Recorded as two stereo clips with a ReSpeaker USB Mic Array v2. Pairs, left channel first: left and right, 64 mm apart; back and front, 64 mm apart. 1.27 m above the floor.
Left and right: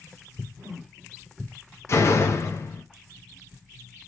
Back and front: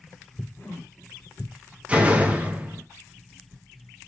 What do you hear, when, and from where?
0.6 s a whoosh: 140° right, 1.6 m
1.9 s a door slam: 65° left, 0.7 m